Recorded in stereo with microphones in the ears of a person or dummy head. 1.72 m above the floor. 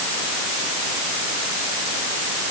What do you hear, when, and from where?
Only background noise.